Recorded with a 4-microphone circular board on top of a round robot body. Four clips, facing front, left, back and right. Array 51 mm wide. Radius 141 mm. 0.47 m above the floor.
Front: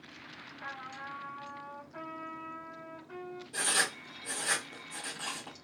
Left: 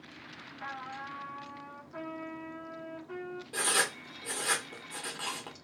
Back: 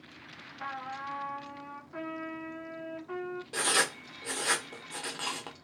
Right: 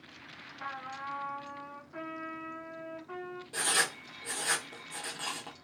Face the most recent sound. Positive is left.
turn(degrees=165)